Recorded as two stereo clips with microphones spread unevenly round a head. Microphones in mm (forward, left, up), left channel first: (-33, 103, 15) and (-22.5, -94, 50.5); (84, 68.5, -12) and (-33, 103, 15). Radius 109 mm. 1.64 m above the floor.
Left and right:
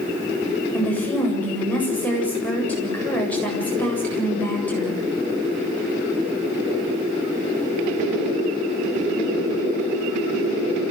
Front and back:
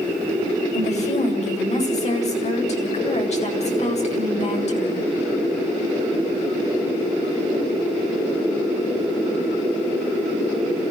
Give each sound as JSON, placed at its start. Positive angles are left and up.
{"t": 0.7, "sound": "a woman speaking", "azimuth_deg": 10, "distance_m": 8.0}